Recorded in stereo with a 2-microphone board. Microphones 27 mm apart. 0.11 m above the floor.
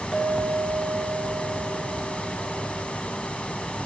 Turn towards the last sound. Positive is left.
turn(degrees=-30)  # may be behind; listen again after turning